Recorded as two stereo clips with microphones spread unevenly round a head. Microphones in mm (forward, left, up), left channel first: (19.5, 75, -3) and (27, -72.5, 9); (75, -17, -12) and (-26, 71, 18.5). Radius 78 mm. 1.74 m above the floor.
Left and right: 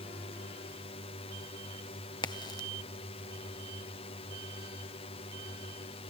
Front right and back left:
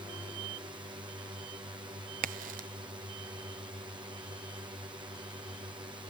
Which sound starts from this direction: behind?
A crack, at 2.2 s.